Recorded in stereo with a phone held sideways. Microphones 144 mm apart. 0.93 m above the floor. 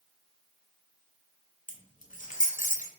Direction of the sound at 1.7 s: 65° left (ahead or behind).